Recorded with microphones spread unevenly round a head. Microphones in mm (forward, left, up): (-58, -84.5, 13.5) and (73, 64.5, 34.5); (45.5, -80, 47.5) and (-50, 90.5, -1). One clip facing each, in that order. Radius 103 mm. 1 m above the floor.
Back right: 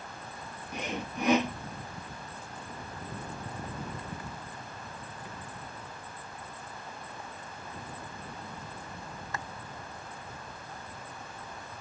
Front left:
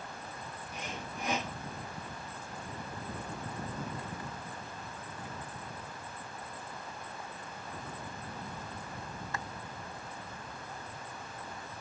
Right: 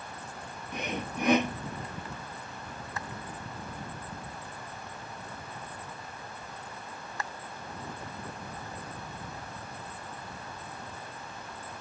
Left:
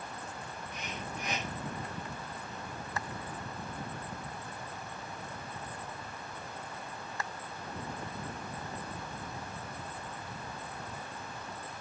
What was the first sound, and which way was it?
Sawing, 95° right.